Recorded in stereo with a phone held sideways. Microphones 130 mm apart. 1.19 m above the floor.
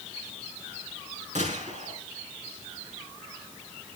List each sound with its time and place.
1.4 s a gunshot: 65° right (ahead or behind), 8 m